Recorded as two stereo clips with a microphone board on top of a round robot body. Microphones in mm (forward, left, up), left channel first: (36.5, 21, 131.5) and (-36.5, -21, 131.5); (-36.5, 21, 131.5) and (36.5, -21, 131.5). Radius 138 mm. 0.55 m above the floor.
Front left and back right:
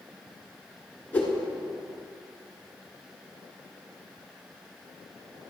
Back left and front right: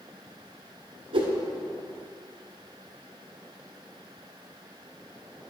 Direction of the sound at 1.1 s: 40° right.